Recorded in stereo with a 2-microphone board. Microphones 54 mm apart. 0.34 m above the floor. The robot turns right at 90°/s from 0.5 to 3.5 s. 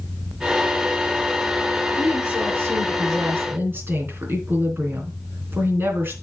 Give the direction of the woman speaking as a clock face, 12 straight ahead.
6 o'clock.